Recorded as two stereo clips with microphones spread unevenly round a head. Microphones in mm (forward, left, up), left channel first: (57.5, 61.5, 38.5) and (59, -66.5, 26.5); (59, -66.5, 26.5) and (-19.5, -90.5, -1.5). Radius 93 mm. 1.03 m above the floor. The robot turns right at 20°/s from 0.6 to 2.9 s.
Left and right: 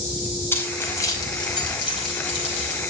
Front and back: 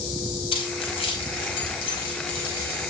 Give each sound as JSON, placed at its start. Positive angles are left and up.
{"t": 0.5, "sound": "keys jangling", "azimuth_deg": 20, "distance_m": 5.0}